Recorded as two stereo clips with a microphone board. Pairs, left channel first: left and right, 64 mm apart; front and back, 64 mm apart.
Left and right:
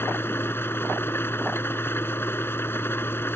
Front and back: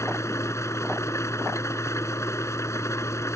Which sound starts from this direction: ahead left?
An engine running, at 0.0 s.